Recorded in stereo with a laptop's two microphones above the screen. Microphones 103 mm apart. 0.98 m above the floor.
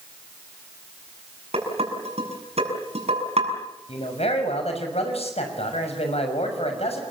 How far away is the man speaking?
About 6 m.